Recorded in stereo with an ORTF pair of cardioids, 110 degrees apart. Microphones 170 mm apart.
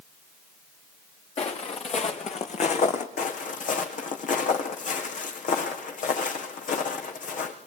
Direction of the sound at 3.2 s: 55° left.